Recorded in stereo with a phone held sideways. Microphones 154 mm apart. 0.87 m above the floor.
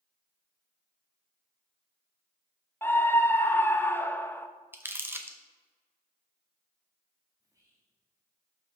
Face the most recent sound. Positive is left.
turn(degrees=-20)  # may be behind; listen again after turning